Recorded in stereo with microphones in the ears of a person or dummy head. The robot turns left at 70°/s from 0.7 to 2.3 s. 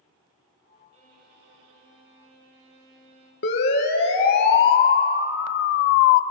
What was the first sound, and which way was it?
A violin, 30° right.